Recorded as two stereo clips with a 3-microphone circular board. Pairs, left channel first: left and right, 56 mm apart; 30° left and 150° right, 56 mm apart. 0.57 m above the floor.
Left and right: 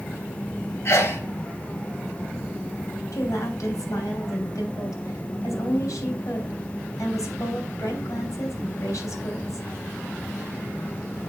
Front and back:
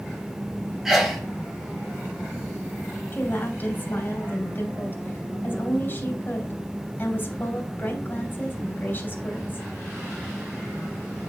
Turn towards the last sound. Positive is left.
turn(degrees=80)